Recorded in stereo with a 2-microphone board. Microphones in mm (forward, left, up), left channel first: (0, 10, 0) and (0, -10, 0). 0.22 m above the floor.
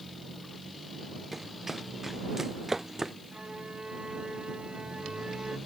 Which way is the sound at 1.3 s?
15° right (ahead or behind).